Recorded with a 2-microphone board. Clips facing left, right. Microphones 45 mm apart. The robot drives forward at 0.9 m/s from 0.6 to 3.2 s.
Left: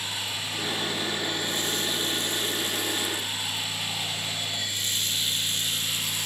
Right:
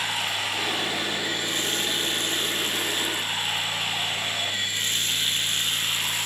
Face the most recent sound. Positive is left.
turn(degrees=-50)  # may be behind; listen again after turning